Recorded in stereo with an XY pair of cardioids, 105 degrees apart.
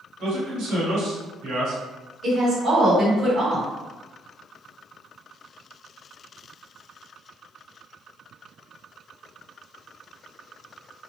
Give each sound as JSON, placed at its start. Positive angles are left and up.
{"t": 0.2, "sound": "a man speaking", "azimuth_deg": -65, "distance_m": 1.4}
{"t": 2.2, "sound": "a woman speaking", "azimuth_deg": -60, "distance_m": 1.4}